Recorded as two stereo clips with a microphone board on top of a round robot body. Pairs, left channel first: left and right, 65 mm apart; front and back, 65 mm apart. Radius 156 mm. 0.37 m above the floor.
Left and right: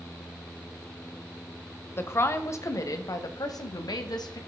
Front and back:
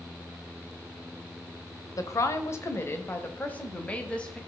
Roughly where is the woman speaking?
Ahead left.